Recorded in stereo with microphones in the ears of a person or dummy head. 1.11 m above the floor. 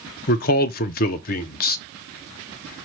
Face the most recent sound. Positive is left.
turn(degrees=50)  # may be behind; listen again after turning